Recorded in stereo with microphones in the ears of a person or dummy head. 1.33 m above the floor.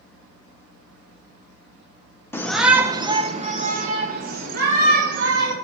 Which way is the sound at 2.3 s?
15° left (ahead or behind).